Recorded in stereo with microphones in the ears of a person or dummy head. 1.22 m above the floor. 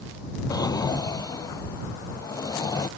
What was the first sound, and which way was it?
A drawer, 20° left (ahead or behind).